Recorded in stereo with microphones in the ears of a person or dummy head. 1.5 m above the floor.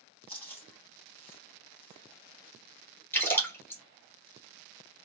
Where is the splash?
10° left (ahead or behind), 1.4 m.